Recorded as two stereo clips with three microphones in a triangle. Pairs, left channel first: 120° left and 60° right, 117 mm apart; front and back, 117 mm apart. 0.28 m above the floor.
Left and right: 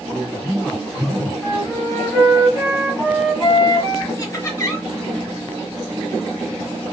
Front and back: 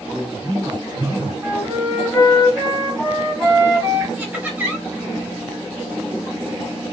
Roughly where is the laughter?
Behind left.